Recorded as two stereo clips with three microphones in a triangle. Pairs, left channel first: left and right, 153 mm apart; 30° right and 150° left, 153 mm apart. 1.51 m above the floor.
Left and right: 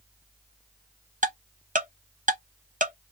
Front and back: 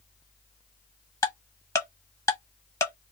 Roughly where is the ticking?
Right.